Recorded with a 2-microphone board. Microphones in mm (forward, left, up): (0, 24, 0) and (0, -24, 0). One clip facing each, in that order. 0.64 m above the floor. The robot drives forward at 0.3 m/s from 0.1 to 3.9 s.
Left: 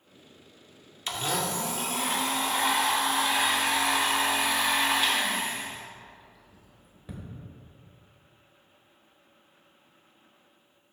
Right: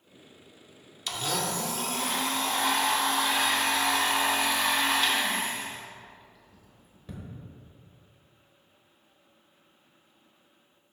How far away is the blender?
About 0.6 m.